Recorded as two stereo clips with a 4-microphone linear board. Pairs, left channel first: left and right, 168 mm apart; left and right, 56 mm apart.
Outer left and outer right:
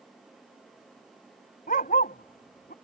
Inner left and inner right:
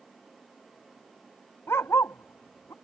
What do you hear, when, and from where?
1.7 s a dog barking: 55° left (ahead or behind); by 2.7 s 70° left (ahead or behind)